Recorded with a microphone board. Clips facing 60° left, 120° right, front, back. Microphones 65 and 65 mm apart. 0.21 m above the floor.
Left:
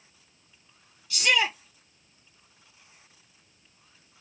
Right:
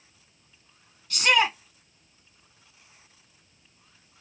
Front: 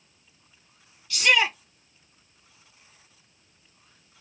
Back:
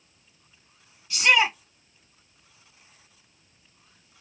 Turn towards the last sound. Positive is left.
turn(degrees=-115)